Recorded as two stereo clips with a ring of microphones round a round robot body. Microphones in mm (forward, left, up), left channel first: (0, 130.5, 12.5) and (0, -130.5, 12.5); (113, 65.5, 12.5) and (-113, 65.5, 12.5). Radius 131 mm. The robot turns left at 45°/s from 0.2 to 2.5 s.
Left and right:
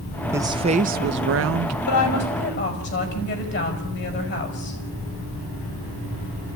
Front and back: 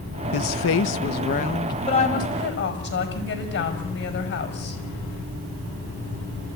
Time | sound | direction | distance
0.3 | a woman speaking | 10° right | 1.1 m
1.9 | a woman speaking | 70° left | 6 m